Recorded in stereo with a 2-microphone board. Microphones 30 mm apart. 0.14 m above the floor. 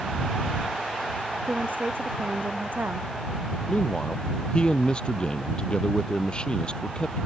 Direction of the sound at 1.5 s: 80° right.